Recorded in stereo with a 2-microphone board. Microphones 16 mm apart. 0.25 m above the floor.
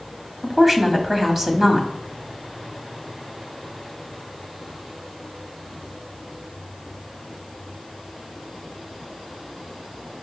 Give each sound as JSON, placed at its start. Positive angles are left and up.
{"t": 0.4, "sound": "a woman speaking", "side_deg": -25, "distance_m": 1.1}